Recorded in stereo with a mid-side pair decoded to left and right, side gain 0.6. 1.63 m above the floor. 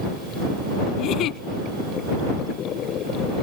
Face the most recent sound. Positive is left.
turn(degrees=60)